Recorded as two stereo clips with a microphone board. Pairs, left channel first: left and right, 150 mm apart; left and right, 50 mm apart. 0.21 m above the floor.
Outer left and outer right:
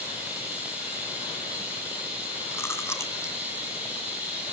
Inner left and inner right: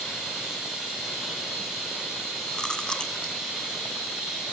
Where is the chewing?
15° left (ahead or behind), 1.5 m.